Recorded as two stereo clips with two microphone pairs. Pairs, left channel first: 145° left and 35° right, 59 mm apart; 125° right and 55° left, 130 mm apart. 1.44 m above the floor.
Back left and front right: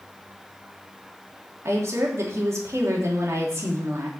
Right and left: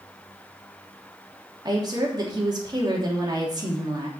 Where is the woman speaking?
Straight ahead, 3 m.